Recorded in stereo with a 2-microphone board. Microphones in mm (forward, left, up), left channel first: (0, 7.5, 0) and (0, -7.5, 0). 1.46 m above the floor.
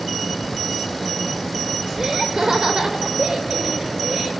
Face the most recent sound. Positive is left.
turn(degrees=-65)  # may be behind; listen again after turning